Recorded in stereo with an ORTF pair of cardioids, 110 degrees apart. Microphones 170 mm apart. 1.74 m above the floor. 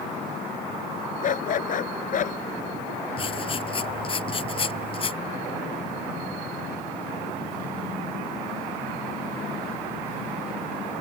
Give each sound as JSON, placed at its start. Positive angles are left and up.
{"t": 1.2, "sound": "a dog barking", "azimuth_deg": 50}
{"t": 3.2, "sound": "writing", "azimuth_deg": 30}